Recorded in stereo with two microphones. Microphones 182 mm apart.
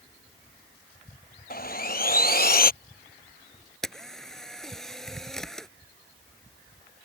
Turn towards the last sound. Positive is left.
turn(degrees=0)  # may be behind; listen again after turning